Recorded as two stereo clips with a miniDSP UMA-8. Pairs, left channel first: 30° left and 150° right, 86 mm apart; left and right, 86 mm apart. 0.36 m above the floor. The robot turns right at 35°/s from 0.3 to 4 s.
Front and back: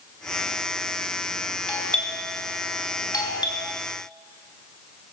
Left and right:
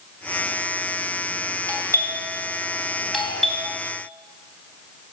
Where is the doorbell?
50° right, 3.5 m; by 3.7 s 20° left, 3.5 m.